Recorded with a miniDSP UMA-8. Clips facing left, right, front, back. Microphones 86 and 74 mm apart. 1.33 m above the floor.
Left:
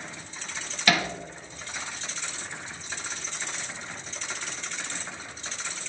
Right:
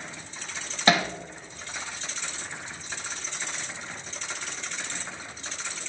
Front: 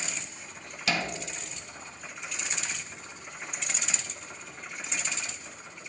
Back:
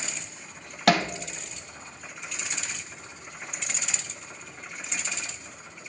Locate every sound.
0.9 s hammering: 150° right, 1.0 m